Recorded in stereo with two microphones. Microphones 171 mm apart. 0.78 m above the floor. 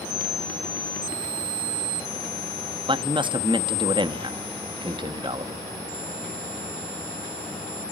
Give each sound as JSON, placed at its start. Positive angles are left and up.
{"t": 2.9, "sound": "a man speaking", "side_deg": -30, "distance_m": 0.7}